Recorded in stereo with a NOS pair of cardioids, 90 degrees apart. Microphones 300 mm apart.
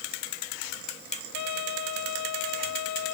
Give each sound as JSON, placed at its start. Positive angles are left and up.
{"t": 1.3, "sound": "a trumpet", "azimuth_deg": 65}